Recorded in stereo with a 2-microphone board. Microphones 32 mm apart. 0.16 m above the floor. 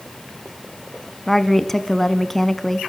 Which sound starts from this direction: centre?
A woman speaking, at 1.3 s.